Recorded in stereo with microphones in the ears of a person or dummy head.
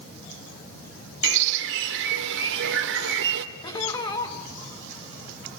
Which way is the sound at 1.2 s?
60° right (ahead or behind).